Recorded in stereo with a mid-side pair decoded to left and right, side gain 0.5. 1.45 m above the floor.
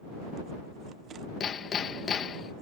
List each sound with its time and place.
1.4 s hammering: 45° left